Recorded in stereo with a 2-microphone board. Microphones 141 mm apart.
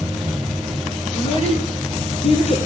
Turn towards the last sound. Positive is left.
turn(degrees=45)  # may be behind; listen again after turning